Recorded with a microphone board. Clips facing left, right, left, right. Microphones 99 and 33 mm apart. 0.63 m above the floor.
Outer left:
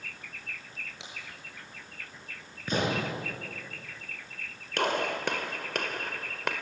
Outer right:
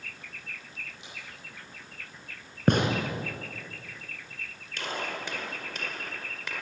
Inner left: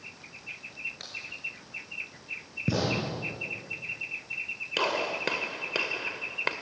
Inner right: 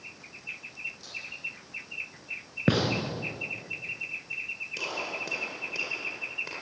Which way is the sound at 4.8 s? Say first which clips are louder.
Outer left 6 dB, inner left 7 dB; 65° left (ahead or behind).